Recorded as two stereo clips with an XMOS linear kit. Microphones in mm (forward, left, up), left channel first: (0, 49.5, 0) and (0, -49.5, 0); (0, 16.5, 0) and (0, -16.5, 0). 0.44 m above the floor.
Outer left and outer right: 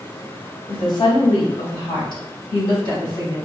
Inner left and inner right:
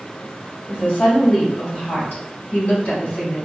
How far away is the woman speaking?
About 1.8 m.